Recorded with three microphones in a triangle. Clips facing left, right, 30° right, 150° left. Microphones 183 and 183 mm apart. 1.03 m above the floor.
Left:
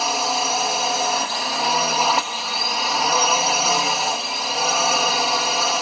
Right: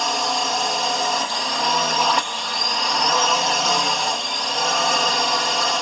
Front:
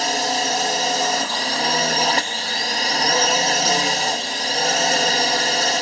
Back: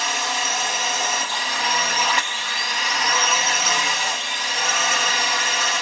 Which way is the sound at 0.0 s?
5° left.